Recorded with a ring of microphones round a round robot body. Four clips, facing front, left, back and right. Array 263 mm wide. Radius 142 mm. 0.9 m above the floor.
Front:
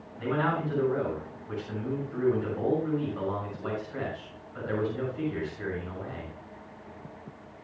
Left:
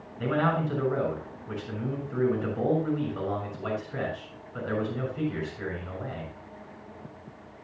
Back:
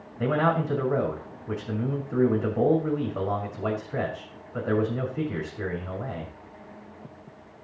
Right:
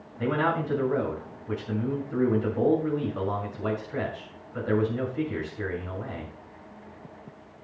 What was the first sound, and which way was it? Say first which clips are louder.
A man speaking: even, back 4 dB; 165° right.